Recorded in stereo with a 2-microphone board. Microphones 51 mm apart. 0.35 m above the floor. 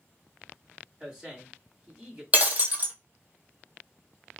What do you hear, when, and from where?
1.0 s a man speaking: 15° right (ahead or behind), 2.0 m
2.3 s breaking glass: 30° right (ahead or behind), 0.9 m